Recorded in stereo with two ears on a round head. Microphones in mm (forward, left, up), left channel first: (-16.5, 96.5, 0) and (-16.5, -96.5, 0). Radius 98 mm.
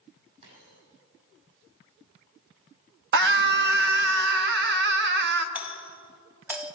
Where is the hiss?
I don't hear a hiss.